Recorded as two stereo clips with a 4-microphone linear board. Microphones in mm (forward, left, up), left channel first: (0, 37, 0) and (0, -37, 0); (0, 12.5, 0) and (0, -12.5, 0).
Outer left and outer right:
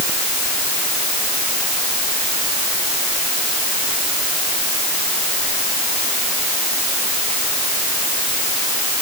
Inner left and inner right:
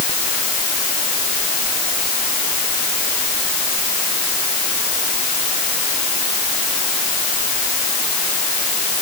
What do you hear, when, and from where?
Only background noise.